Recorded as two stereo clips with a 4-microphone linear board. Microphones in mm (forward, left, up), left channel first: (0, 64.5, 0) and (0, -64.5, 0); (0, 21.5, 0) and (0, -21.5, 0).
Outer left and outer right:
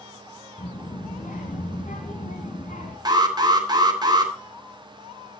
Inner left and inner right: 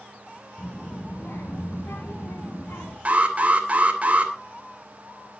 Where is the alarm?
35° right (ahead or behind), 3 m.